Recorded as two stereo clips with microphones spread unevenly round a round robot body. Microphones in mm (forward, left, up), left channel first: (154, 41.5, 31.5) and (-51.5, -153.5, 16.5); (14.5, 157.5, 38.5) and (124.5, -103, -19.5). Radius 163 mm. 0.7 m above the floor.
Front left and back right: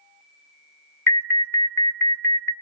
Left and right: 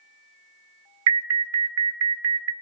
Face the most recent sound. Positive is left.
turn(degrees=-40)